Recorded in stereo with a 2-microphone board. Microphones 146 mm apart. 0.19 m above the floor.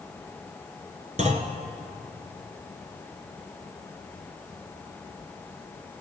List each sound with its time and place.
1.2 s a clunk: 55° right (ahead or behind), 1.1 m